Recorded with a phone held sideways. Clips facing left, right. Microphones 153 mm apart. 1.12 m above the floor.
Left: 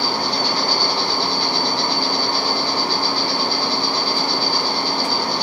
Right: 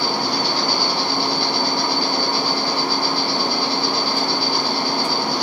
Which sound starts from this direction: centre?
An insect, at 0.0 s.